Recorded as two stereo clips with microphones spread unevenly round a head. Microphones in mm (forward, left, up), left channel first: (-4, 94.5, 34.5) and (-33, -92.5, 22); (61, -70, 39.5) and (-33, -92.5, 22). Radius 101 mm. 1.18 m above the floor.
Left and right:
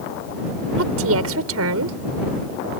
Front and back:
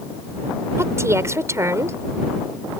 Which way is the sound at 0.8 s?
105° right.